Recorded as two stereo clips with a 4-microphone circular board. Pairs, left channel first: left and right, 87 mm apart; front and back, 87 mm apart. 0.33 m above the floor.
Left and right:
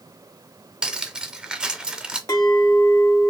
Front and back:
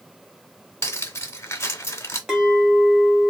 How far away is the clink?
About 1.2 m.